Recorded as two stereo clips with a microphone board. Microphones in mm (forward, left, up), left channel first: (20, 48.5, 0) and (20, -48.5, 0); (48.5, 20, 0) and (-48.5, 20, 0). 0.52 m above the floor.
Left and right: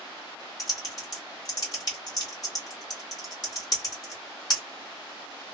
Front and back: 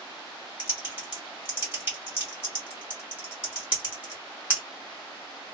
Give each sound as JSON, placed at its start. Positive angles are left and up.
{"t": 0.6, "sound": "typing on a keyboard", "azimuth_deg": 110, "distance_m": 1.7}